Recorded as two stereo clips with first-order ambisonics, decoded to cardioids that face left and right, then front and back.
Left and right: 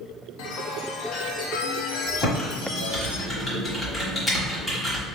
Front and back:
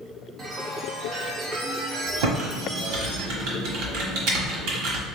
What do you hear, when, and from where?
0.4 s a chime: 110° left, 0.8 m
2.2 s typing on a keyboard: 175° left, 1.3 m